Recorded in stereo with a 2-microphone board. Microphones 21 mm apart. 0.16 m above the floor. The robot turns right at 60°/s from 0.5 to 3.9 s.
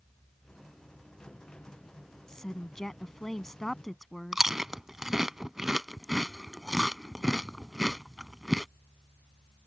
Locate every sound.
2.3 s a woman speaking: 20° left (ahead or behind); by 4.4 s 5° left (ahead or behind)
4.3 s chewing: 20° right (ahead or behind)